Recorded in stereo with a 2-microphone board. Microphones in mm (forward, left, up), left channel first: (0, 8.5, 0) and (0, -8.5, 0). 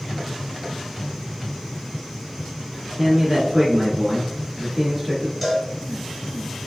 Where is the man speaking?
20° right (ahead or behind), 1.2 m.